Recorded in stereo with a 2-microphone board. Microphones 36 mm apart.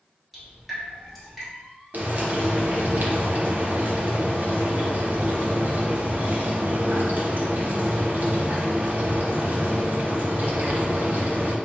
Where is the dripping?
Centre (ahead or behind), 1.8 m.